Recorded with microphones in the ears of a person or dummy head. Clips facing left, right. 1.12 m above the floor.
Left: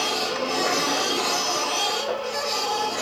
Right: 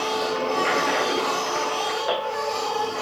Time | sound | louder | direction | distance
0.0 | a machine running | right 2 dB | 45° left (ahead or behind) | 3.5 m